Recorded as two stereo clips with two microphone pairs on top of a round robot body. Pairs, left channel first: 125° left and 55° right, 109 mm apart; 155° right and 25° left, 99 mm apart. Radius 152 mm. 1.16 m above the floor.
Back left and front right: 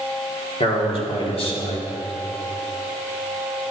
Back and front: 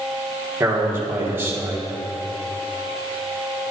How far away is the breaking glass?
I don't hear breaking glass.